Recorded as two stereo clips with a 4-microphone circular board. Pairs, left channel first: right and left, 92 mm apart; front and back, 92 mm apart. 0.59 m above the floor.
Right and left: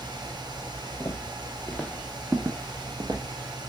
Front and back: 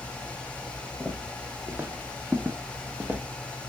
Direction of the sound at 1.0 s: 110° right.